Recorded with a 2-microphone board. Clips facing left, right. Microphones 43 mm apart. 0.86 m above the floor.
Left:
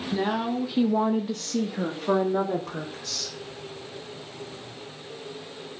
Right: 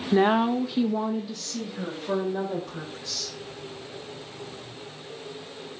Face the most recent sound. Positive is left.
turn(degrees=70)  # may be behind; listen again after turning